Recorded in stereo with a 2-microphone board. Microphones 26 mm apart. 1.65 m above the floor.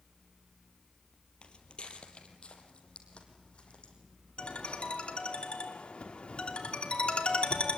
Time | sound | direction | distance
1.4 | footsteps | 45° left (ahead or behind) | 2.5 m
4.4 | a ringtone | 55° left (ahead or behind) | 3 m